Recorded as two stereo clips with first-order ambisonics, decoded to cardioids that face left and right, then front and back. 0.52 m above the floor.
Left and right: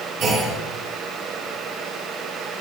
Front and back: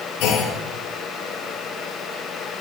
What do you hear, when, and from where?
0.2 s a clunk: 35° right, 6.5 m